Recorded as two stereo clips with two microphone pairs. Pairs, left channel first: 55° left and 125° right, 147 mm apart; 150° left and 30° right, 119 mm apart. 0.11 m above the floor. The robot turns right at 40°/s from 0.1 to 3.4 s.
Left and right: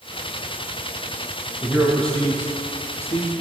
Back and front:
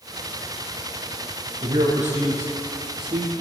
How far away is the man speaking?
About 4 m.